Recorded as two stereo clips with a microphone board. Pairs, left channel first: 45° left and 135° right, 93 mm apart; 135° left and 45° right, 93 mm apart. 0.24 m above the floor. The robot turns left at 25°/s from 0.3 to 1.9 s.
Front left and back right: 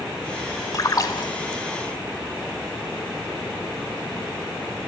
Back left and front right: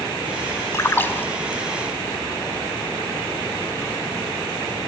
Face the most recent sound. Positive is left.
turn(degrees=55)